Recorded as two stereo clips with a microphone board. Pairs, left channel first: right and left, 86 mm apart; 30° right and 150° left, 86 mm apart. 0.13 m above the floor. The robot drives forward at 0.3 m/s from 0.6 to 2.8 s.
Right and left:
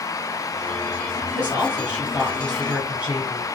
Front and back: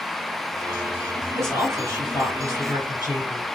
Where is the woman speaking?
150° left, 1.5 m; by 3.5 s 160° left, 1.8 m.